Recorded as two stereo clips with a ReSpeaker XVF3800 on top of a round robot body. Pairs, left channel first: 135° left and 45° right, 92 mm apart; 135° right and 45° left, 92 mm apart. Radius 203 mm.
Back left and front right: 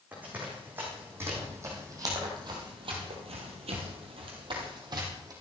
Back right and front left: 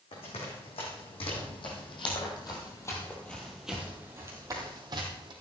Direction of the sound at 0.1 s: 120° right.